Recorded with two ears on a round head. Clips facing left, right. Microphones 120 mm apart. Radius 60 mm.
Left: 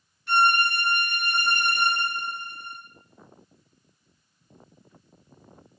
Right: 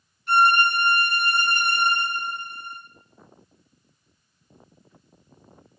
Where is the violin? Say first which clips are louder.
Right 3 dB; 55° left (ahead or behind), 0.7 m.